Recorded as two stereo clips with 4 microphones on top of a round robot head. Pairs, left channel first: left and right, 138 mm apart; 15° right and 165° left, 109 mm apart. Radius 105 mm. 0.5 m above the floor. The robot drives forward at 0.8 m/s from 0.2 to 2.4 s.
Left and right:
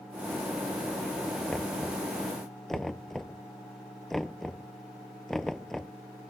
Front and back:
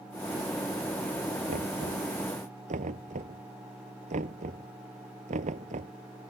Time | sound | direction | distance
1.5 | knocking | straight behind | ?